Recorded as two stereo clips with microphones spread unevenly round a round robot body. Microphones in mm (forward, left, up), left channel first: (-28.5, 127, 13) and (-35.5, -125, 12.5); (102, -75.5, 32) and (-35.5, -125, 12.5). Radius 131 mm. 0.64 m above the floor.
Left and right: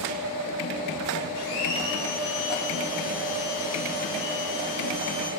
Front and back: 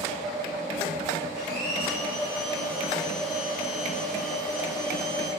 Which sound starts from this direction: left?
A blender, at 1.3 s.